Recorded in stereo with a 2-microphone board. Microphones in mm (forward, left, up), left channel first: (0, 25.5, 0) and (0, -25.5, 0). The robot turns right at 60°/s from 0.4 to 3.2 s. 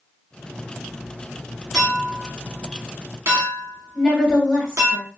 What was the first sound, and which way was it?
A clink, 5° left (ahead or behind).